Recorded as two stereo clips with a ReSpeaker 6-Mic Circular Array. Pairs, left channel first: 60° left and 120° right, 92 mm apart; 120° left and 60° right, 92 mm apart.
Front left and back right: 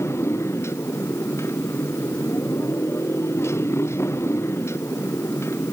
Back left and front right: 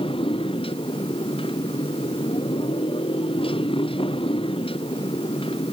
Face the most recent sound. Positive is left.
turn(degrees=120)